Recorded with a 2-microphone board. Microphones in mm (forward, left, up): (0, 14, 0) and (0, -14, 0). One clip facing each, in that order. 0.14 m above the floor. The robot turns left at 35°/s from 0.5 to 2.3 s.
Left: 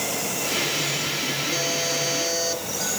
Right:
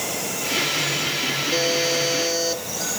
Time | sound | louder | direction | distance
1.5 | a buzzer | right 4 dB | 35° right (ahead or behind) | 4.5 m